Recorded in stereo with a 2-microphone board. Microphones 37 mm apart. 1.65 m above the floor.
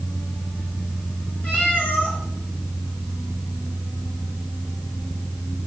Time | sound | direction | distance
1.4 | a cat meowing | 45° left (ahead or behind) | 4 m